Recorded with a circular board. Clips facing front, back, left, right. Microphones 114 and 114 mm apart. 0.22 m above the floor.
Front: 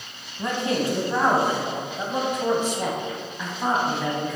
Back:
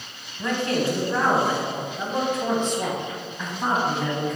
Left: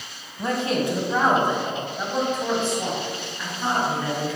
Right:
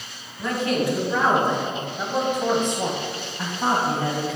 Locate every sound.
0.4 s a man speaking: 55° left, 1.6 m; by 4.4 s 90° right, 1.9 m